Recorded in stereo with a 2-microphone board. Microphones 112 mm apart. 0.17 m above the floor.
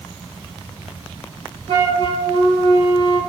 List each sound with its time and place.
1.7 s a flute: 65° right (ahead or behind), 3 m